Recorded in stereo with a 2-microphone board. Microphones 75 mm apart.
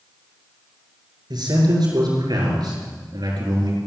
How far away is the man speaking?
About 5.5 m.